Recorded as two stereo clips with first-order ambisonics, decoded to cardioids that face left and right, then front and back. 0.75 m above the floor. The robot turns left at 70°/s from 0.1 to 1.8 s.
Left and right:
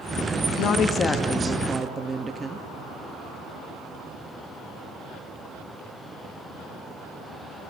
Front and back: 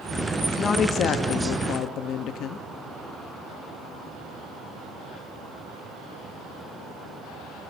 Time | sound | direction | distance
0.6 | a woman speaking | 65° left | 0.8 m